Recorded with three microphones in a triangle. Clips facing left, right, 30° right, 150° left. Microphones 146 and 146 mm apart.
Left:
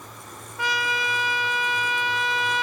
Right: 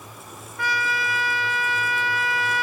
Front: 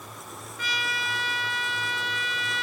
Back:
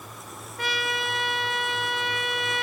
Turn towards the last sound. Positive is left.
turn(degrees=155)